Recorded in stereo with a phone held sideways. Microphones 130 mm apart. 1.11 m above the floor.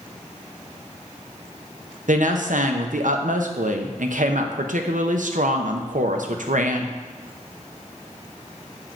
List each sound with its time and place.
2.1 s a woman speaking: 80° right, 0.8 m